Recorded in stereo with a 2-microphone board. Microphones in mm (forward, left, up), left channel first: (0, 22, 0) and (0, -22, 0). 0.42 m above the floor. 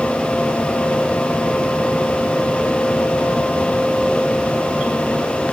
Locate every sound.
Only background noise.